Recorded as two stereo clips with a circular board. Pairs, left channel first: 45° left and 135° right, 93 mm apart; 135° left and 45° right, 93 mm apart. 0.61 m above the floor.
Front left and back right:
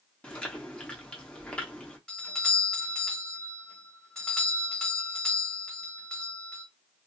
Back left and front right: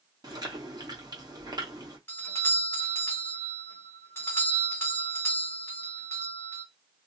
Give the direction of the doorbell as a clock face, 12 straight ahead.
8 o'clock.